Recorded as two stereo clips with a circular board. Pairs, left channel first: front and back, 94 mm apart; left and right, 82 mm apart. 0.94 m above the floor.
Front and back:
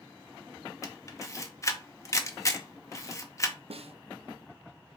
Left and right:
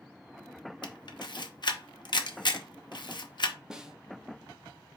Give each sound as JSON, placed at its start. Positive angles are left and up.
{"t": 0.8, "sound": "a camera shutter", "azimuth_deg": 60, "distance_m": 0.7}
{"t": 3.7, "sound": "a snare drum", "azimuth_deg": -170, "distance_m": 0.6}